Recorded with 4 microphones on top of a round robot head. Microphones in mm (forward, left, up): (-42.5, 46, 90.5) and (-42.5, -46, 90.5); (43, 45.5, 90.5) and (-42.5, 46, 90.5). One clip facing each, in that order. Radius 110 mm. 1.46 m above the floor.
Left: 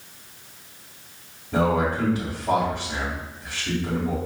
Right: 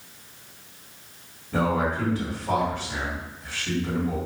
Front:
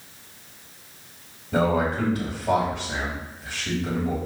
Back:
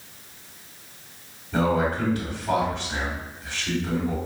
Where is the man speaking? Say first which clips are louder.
Left 2 dB, front 1 dB; 15° left, 2 m.